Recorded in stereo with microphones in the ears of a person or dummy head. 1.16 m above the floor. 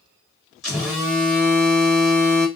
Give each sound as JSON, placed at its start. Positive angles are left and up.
{"t": 0.6, "sound": "a phone buzzing", "side_deg": 0, "distance_m": 1.4}